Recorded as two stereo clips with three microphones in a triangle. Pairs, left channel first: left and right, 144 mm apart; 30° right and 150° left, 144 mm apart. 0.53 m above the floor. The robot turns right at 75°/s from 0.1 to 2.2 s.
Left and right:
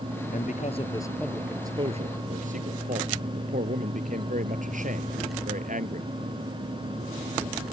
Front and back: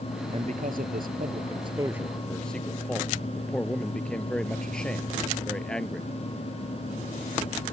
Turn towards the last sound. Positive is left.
turn(degrees=-115)